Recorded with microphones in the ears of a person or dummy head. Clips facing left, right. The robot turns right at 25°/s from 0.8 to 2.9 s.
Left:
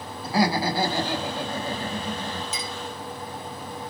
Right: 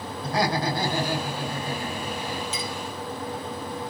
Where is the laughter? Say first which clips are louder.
Left 2 dB; 5° left, 1.7 m; by 2.4 s 50° left, 1.7 m.